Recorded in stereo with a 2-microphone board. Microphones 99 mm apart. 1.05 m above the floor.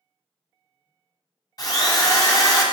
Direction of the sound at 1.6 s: 40° left (ahead or behind).